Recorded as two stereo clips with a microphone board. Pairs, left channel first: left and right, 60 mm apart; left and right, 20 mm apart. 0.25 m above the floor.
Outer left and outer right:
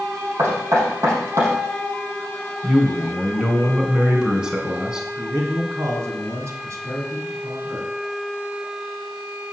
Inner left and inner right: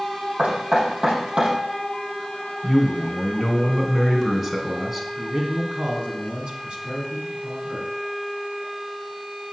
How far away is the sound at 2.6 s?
About 2.5 m.